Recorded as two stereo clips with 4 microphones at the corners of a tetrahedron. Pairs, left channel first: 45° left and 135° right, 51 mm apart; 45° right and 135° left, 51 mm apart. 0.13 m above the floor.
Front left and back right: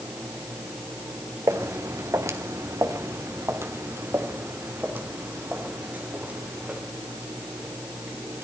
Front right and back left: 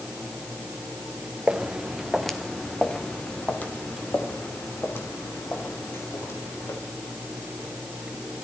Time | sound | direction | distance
1.5 | footsteps | 150° right | 1.6 m